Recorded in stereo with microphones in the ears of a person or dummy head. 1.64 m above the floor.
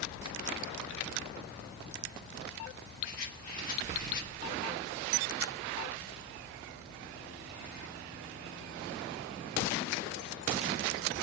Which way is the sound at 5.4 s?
85° right.